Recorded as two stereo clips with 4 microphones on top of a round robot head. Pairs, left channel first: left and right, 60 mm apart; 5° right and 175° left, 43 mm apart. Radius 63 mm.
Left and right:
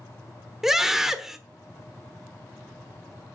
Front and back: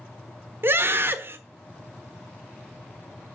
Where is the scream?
170° right, 1.2 m.